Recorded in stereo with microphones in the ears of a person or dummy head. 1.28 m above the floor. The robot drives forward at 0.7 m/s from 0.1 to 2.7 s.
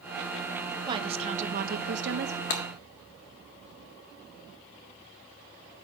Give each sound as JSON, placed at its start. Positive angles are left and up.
{"t": 0.9, "sound": "a woman speaking", "side_deg": -25, "distance_m": 0.9}
{"t": 2.5, "sound": "breaking glass", "side_deg": 40, "distance_m": 0.7}